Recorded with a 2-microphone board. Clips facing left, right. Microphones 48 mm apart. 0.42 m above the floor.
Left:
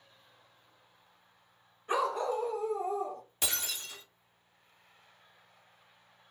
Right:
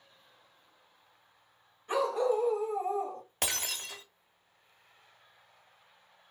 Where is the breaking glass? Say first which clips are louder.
Right 2 dB; 55° right (ahead or behind), 0.9 m.